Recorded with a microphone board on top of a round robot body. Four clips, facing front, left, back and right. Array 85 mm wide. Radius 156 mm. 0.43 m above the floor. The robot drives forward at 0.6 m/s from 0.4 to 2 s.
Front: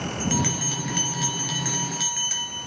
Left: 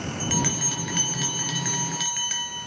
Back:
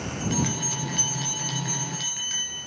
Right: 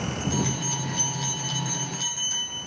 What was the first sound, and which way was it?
A bell, 65° left.